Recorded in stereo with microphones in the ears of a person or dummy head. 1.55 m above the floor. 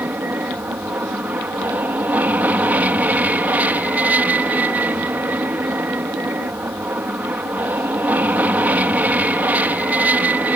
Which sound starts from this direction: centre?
An aircraft, at 0.0 s.